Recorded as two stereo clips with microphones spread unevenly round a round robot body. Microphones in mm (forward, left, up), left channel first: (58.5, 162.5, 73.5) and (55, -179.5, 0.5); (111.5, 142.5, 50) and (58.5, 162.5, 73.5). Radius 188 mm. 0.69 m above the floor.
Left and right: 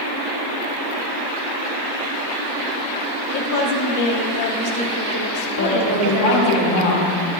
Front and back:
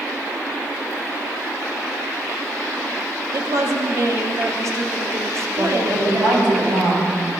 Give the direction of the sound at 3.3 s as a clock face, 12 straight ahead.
8 o'clock.